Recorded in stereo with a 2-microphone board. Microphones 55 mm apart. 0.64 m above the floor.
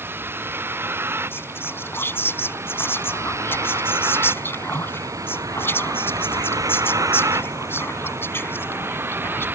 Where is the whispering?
45° left (ahead or behind).